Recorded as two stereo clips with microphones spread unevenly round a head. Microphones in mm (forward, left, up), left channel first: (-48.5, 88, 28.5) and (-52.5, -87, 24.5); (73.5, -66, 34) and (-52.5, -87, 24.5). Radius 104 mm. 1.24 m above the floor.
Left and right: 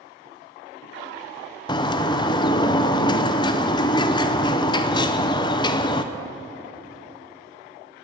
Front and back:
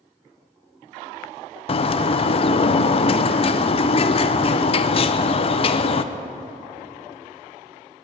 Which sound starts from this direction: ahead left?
A bird, at 1.7 s.